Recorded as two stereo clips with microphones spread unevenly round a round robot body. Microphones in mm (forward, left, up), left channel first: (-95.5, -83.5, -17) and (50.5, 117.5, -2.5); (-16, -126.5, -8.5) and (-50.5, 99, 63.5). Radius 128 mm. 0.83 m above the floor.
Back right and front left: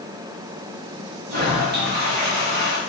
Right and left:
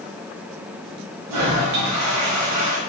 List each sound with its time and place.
1.3 s a toilet flushing: 105° left, 3 m